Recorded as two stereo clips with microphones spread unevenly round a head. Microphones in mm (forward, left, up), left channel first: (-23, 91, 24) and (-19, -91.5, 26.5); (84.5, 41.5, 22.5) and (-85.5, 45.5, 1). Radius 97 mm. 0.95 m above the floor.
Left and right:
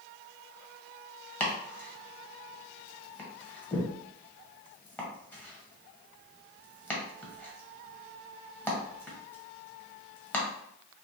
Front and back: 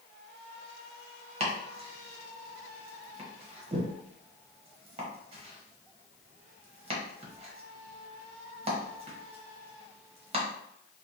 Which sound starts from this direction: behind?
Chopping, at 1.4 s.